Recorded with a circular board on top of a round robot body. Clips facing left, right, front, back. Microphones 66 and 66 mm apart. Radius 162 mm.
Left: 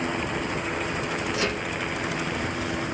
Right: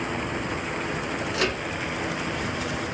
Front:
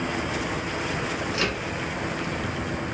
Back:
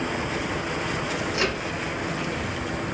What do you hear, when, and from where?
1.3 s a microwave: 115° right, 1.6 m